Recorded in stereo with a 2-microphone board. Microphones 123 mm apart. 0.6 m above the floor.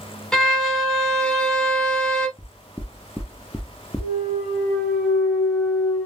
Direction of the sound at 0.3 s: 5° left (ahead or behind).